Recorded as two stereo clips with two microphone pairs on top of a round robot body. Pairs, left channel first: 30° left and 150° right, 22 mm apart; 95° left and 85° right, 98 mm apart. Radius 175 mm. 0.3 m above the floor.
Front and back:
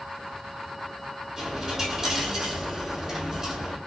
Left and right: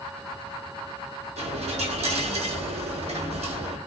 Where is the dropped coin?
80° right, 1.4 m.